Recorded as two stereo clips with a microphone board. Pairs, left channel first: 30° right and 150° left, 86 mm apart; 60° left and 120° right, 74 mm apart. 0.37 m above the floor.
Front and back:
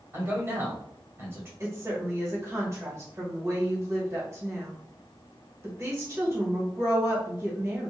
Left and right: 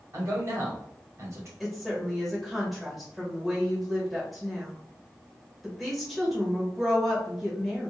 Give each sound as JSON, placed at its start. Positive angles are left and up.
{"t": 0.1, "sound": "a man speaking", "azimuth_deg": -155, "distance_m": 1.4}
{"t": 1.6, "sound": "a woman speaking", "azimuth_deg": 150, "distance_m": 1.3}